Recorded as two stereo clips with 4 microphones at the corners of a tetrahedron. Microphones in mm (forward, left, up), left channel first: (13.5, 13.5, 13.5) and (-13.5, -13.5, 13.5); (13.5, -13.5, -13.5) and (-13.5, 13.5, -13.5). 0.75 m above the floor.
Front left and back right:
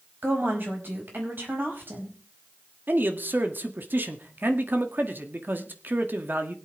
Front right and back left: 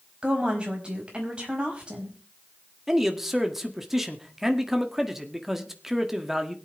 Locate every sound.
0.2 s a woman speaking: 160° right, 4.5 m
2.9 s a man speaking: 145° right, 1.7 m